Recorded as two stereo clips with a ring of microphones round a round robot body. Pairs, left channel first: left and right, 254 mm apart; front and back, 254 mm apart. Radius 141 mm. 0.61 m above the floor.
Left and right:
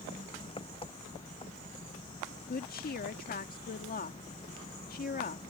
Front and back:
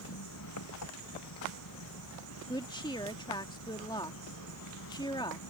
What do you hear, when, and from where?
0.0 s an engine running: 20° left
2.5 s a woman speaking: 65° left